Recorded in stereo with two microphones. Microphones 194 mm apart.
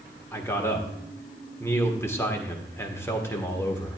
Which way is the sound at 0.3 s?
15° left (ahead or behind).